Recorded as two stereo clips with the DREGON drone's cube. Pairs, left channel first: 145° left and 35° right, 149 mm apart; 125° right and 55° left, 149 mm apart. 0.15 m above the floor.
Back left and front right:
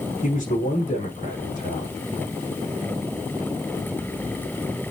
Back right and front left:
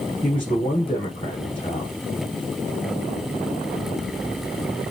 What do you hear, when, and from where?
0.2 s a man speaking: straight behind, 5.5 m